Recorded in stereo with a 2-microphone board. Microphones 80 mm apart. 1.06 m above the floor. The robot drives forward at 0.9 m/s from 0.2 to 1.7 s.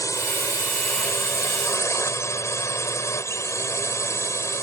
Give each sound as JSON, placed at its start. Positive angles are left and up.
{"t": 0.0, "sound": "a drone", "side_deg": 40}